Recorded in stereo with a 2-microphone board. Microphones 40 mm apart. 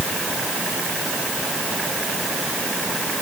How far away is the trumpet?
I don't hear a trumpet.